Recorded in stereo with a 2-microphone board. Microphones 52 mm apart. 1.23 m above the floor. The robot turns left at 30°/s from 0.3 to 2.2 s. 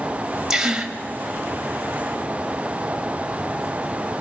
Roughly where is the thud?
I don't hear a thud.